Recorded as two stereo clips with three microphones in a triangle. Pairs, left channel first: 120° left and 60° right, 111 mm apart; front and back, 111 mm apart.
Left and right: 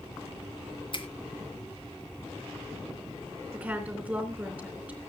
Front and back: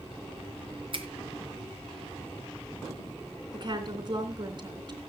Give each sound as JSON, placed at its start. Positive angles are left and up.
{"t": 0.9, "sound": "a finger snap", "azimuth_deg": 150, "distance_m": 1.9}
{"t": 3.5, "sound": "a woman speaking", "azimuth_deg": -135, "distance_m": 3.5}